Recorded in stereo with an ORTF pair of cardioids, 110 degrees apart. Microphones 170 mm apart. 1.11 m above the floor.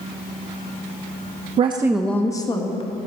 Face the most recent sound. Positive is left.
turn(degrees=35)